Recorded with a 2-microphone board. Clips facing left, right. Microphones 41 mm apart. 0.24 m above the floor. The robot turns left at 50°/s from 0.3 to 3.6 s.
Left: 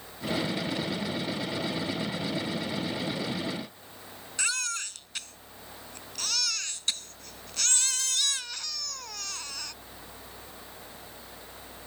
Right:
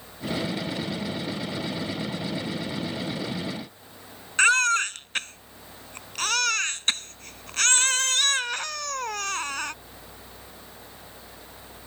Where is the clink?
I don't hear a clink.